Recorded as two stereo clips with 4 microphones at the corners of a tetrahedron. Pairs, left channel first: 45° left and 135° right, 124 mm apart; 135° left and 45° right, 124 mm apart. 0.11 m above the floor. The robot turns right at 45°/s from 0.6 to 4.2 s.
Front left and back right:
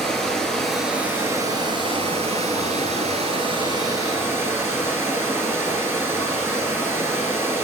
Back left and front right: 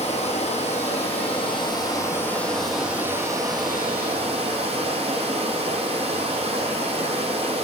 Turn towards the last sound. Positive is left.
turn(degrees=-70)